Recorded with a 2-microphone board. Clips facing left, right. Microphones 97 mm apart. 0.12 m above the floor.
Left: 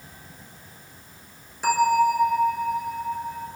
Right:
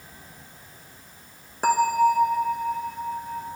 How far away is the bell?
About 1.4 m.